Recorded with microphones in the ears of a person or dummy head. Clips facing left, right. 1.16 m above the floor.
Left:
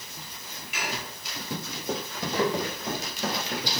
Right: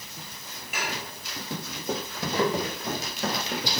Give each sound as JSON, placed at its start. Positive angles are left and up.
{"t": 0.7, "sound": "dishes clattering", "side_deg": -45, "distance_m": 4.0}